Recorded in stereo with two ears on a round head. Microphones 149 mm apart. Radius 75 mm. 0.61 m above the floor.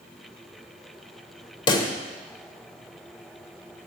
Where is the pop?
30° left (ahead or behind), 1.2 m.